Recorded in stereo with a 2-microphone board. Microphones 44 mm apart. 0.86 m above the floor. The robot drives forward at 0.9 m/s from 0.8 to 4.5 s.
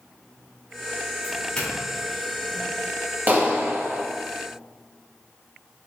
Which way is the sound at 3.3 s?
45° right (ahead or behind).